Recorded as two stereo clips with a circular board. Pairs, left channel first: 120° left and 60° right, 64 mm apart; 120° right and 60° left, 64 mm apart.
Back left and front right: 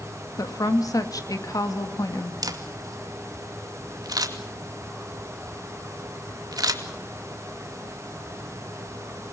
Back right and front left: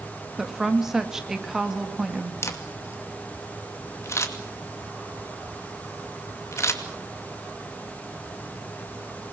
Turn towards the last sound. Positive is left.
turn(degrees=-75)